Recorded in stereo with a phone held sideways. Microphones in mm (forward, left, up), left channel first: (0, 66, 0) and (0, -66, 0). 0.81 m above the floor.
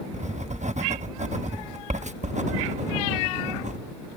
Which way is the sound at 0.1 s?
65° right (ahead or behind).